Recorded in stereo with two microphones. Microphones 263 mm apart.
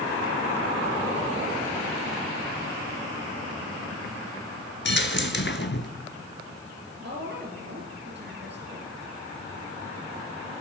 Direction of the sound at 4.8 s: 45° left (ahead or behind).